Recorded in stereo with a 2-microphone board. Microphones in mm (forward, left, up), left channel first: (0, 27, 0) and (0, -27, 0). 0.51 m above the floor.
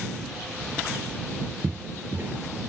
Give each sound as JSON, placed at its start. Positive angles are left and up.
{"t": 1.6, "sound": "footsteps", "side_deg": -40}